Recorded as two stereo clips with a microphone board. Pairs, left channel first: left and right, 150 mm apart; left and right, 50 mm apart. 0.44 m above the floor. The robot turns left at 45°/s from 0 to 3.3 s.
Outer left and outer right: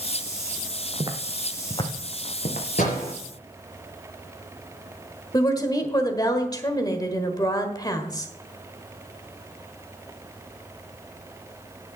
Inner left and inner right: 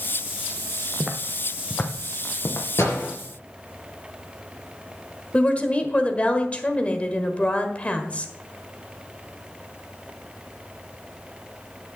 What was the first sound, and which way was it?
Footsteps, 40° right (ahead or behind).